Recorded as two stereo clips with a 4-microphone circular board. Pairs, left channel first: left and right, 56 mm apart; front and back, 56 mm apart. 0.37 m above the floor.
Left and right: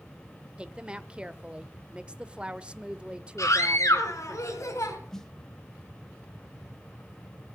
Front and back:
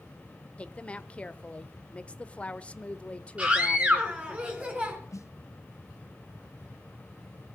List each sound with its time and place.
0.6 s a woman speaking: 40° right, 0.8 m
3.4 s a scream: 115° left, 4 m
5.1 s a snare drum: 10° left, 1.1 m